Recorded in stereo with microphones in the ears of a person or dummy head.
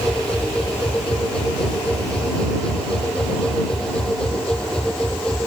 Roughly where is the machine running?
Centre.